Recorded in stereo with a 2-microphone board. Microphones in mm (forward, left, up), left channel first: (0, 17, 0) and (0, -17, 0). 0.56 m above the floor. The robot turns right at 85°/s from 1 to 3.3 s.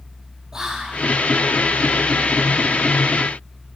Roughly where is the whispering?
Centre.